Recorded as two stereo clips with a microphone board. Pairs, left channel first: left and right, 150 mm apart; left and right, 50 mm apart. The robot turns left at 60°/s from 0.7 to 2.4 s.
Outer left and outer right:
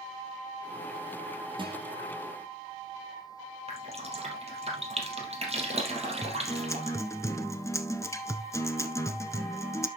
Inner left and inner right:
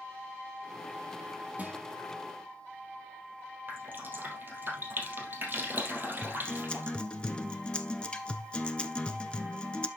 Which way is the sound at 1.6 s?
30° right (ahead or behind).